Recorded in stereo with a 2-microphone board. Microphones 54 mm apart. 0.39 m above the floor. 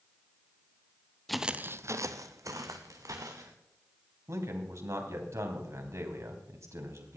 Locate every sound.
1.3 s footsteps: 5° left (ahead or behind), 0.7 m; by 3.5 s 80° right, 3 m
4.3 s a man speaking: 60° right (ahead or behind), 3 m